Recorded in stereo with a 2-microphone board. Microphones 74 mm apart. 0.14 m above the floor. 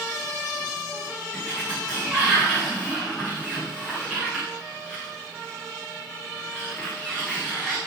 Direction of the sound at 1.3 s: 10° left (ahead or behind).